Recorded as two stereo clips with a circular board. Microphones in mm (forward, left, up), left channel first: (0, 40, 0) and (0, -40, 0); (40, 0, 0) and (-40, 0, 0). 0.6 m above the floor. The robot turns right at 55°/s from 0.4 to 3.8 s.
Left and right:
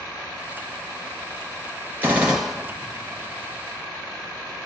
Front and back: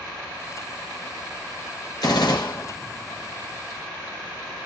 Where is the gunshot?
25° right, 2 m; by 2.7 s 10° left, 2 m.